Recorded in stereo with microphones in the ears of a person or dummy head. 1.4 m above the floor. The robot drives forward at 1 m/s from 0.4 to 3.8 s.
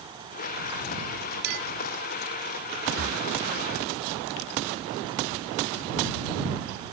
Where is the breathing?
75° right (ahead or behind); by 3.3 s 65° right (ahead or behind).